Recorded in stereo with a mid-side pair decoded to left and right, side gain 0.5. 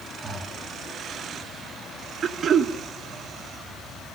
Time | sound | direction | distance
0.2 | breathing | 30° right | 3 m
2.2 | throat clearing | 50° right | 1.4 m